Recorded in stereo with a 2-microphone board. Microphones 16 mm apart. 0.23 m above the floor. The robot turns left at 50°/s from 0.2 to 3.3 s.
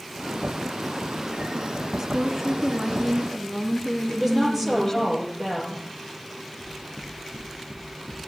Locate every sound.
2.0 s a woman speaking: 145° right, 2.5 m; by 5.1 s 150° left, 2.5 m
4.1 s a woman speaking: 15° right (ahead or behind), 6.5 m
6.6 s knocking: 25° right (ahead or behind), 5 m